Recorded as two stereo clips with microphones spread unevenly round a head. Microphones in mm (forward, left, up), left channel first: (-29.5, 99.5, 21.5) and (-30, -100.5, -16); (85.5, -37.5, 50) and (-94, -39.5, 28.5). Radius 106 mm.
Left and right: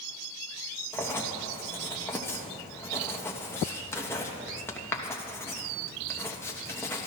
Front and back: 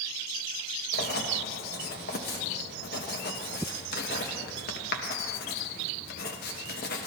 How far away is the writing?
About 1.0 m.